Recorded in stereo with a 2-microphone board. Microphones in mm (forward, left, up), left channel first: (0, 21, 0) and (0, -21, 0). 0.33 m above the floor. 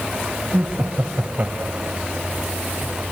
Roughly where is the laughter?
Right.